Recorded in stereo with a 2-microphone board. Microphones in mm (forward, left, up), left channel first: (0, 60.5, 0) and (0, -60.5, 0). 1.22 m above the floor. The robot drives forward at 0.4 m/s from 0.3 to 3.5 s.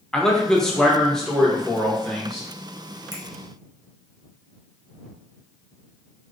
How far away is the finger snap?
About 0.8 m.